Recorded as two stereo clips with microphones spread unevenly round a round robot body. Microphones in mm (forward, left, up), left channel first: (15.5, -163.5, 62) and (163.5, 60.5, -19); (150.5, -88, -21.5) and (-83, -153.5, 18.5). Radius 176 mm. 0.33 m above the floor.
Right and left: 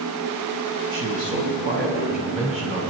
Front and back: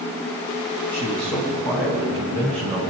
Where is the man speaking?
65° left, 2.5 m; by 2.8 s 125° left, 3.5 m.